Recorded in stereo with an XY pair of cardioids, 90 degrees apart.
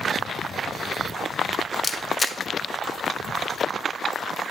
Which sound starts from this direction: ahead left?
A camera shutter, at 1.8 s.